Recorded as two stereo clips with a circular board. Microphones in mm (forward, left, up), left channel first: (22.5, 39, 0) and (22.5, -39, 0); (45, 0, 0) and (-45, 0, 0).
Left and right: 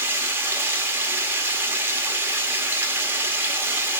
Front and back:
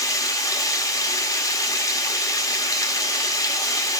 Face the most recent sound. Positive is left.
turn(degrees=-40)